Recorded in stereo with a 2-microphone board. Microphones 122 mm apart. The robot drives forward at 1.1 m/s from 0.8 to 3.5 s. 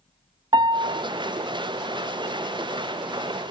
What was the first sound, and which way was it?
A piano, 40° right (ahead or behind).